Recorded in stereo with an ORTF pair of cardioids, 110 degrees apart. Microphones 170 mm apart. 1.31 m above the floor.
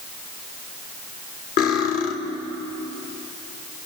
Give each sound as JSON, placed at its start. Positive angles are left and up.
{"t": 1.6, "sound": "cutlery clinking", "azimuth_deg": 70, "distance_m": 2.5}